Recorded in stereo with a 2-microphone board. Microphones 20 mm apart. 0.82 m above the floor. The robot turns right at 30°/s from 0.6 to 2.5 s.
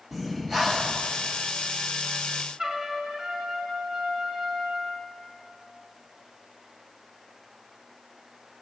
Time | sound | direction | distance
0.1 | breathing | 15° right (ahead or behind) | 0.8 m
2.6 | a trumpet | 40° right (ahead or behind) | 1.3 m